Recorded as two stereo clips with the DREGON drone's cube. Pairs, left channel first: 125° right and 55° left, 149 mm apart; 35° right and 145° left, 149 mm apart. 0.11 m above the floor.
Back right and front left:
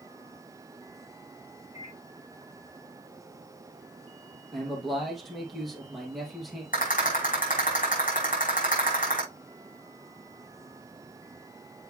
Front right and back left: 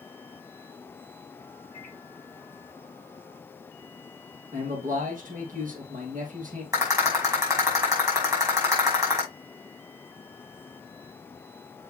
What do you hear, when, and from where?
1.7 s a microwave: 170° right, 5.5 m
4.5 s a man speaking: 145° left, 3 m
6.7 s a rattle: 145° right, 5.5 m